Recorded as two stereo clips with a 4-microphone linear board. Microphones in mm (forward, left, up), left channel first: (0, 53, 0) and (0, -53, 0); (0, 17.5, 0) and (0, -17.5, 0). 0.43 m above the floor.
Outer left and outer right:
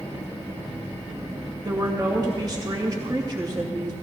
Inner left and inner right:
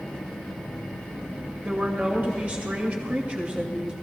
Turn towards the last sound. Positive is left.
turn(degrees=-40)  # may be behind; listen again after turning